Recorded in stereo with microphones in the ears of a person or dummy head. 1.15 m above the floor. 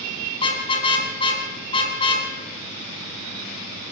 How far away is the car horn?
About 4.5 m.